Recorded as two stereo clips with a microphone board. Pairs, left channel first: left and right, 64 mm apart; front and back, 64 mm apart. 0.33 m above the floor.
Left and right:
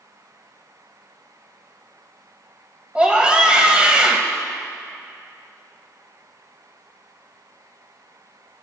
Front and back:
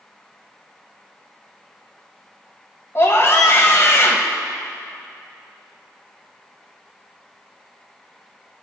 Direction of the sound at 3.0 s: 20° right.